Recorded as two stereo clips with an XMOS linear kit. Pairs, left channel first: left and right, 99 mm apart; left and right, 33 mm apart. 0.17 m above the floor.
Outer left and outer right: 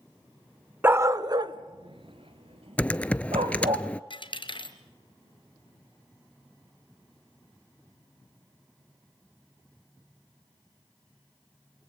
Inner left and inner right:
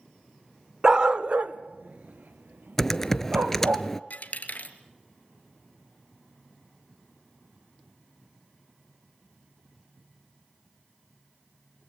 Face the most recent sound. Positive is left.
turn(degrees=55)  # may be behind; listen again after turning